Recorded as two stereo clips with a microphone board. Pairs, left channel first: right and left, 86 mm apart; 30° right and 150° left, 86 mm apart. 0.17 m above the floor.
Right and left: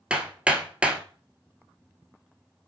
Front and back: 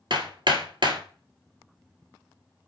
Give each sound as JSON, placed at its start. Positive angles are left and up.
{"t": 0.1, "sound": "hammering", "azimuth_deg": 165, "distance_m": 1.3}